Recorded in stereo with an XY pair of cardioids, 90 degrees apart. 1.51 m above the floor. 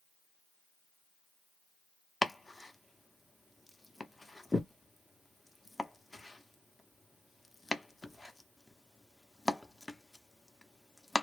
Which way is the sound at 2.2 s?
15° left.